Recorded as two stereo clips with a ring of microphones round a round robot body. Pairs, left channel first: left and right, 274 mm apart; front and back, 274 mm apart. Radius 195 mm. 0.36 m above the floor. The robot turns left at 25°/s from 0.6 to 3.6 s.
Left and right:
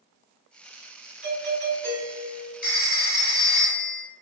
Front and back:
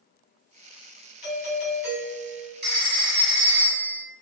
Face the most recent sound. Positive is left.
turn(degrees=105)